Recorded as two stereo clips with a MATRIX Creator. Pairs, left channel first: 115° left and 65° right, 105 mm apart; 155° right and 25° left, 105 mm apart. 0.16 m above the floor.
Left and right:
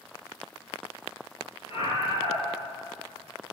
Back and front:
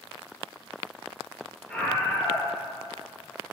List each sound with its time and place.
1.7 s a scream: 125° left, 3 m